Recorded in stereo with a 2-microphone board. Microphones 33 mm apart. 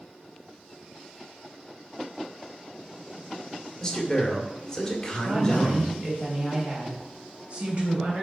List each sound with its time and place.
3.8 s a man speaking: 20° left (ahead or behind), 1.8 m
5.2 s a woman speaking: 35° right (ahead or behind), 3 m